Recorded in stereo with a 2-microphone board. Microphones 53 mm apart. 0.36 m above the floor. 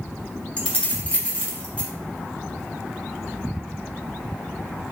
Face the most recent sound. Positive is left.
turn(degrees=25)  # may be behind; listen again after turning